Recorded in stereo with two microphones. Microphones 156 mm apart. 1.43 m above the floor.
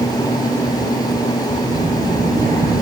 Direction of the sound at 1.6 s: 60° right (ahead or behind).